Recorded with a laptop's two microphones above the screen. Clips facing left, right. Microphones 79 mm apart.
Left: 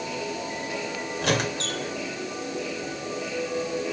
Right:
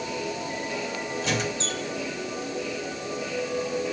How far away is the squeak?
About 0.8 m.